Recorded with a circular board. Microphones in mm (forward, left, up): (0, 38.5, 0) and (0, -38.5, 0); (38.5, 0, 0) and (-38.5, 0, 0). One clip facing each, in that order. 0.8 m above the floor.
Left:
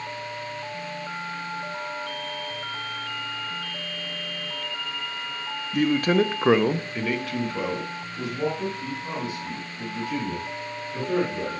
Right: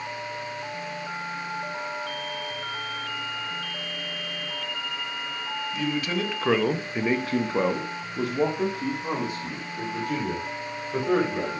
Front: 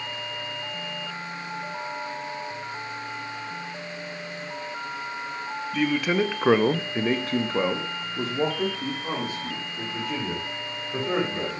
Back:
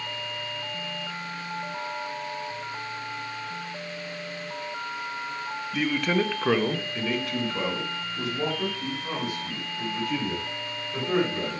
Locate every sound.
5.7 s a man speaking: 95° left, 0.8 m; by 11.6 s 60° right, 3.5 m